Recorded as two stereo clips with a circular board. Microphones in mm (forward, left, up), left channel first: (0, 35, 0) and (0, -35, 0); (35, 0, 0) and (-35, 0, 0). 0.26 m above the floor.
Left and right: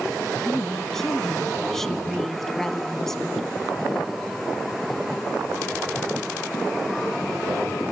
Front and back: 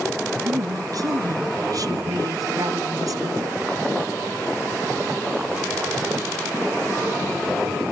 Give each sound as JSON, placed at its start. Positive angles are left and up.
{"t": 0.4, "sound": "a woman speaking", "azimuth_deg": 175, "distance_m": 1.7}